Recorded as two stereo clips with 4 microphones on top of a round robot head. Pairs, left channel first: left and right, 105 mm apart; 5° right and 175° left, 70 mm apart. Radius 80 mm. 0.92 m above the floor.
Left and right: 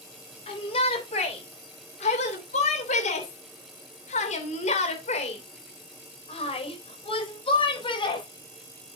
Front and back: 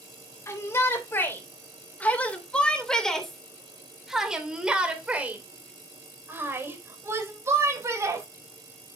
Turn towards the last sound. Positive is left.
turn(degrees=130)